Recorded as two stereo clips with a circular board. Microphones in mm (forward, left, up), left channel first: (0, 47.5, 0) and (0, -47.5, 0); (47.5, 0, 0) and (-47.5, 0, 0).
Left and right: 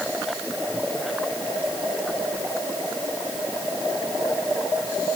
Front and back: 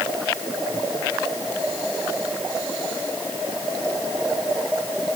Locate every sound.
Only background noise.